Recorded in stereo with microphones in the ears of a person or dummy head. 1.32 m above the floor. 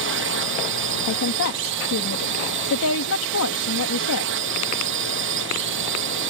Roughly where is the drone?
Right.